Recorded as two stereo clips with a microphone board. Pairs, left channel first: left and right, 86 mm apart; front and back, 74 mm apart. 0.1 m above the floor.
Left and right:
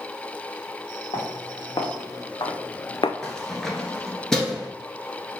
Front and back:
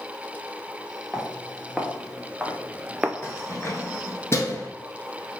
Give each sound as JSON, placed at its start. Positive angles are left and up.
{"t": 1.1, "sound": "footsteps", "azimuth_deg": 100, "distance_m": 1.7}
{"t": 3.2, "sound": "keys jangling", "azimuth_deg": 10, "distance_m": 1.1}